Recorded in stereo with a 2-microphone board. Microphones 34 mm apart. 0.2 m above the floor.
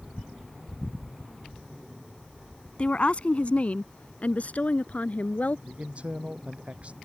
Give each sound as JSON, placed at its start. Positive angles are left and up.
{"t": 2.8, "sound": "a woman speaking", "side_deg": 40}
{"t": 5.7, "sound": "a man speaking", "side_deg": -40}